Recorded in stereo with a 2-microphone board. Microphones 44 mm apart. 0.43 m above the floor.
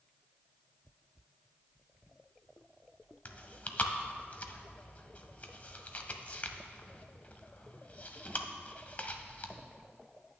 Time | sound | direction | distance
3.2 | chewing | 35° left (ahead or behind) | 0.7 m